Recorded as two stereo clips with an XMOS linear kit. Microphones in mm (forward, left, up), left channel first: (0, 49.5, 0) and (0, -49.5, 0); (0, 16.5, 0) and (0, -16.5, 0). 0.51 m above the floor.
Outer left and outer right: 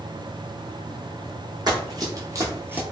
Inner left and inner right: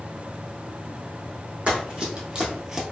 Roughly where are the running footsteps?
Right.